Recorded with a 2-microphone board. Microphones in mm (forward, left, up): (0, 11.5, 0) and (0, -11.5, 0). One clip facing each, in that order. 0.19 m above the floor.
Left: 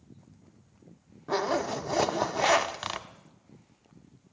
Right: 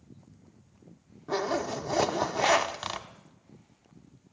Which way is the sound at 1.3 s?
20° left (ahead or behind).